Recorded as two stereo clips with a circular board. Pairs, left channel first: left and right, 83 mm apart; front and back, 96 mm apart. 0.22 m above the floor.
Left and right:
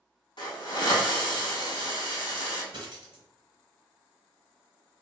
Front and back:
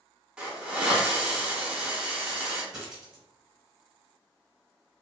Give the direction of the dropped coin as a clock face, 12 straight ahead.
3 o'clock.